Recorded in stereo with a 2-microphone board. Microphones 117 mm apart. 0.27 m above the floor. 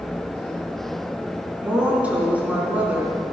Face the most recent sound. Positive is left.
turn(degrees=-10)  # may be behind; listen again after turning